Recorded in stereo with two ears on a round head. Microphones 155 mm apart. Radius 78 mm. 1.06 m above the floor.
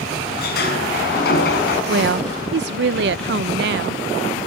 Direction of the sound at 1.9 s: 65° right (ahead or behind).